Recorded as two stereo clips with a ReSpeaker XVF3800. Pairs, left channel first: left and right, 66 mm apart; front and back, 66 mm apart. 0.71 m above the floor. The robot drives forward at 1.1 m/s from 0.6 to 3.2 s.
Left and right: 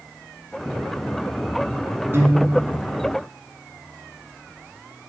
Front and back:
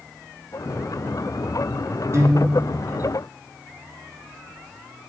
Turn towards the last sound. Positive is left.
turn(degrees=-160)